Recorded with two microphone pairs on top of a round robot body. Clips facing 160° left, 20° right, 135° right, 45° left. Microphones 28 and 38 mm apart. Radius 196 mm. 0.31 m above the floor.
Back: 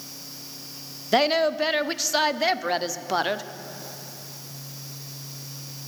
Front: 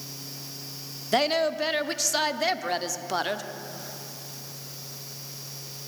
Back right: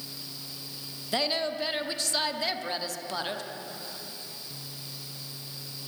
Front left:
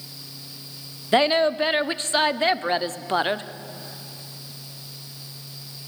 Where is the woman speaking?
80° left, 1.3 m.